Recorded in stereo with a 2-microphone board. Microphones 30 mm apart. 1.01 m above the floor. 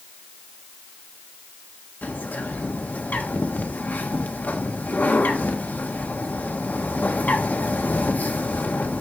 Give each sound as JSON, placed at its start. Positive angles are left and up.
{"t": 2.0, "sound": "a bird", "side_deg": 65, "distance_m": 1.4}